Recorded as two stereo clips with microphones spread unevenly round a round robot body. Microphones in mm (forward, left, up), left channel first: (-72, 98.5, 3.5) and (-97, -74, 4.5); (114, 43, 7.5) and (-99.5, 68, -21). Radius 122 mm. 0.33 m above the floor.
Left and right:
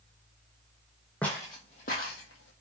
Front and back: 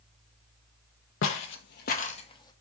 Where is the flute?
I don't hear a flute.